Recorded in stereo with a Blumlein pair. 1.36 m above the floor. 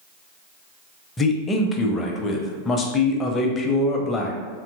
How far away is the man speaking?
About 0.5 m.